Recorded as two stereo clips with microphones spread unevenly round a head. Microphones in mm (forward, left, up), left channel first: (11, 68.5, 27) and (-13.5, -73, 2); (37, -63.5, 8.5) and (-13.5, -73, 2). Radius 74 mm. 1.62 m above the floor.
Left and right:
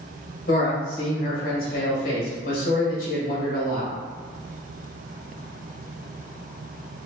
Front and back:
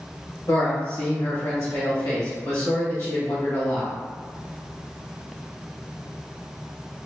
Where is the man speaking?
60° left, 1.5 m.